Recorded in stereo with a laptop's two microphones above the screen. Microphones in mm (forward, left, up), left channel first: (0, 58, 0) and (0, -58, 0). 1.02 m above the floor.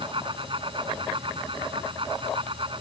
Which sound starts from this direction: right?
A fan, at 0.0 s.